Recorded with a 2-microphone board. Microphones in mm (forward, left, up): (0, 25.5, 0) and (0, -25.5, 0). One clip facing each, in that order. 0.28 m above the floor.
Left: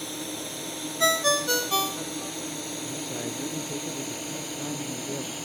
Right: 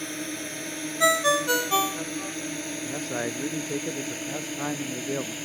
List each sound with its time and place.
0.0 s a drone: 50° right (ahead or behind); by 5.5 s 40° right (ahead or behind)
1.0 s a ringtone: 15° right (ahead or behind)
2.9 s a man speaking: 65° right (ahead or behind)